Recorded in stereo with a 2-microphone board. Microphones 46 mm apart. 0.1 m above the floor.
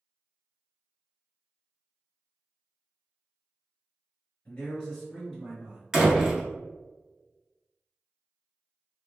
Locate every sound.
4.5 s a man speaking: 25° left (ahead or behind), 1.9 m; by 5.8 s 25° right (ahead or behind), 2 m
5.9 s a door slam: 10° right (ahead or behind), 1.0 m